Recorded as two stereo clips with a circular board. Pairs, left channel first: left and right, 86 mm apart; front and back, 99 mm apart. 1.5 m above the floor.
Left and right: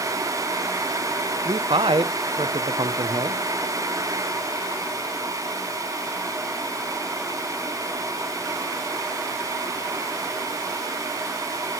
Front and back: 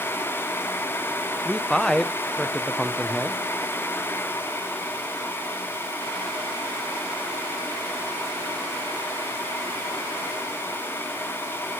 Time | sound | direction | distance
1.4 | a man speaking | 85° right | 1.1 m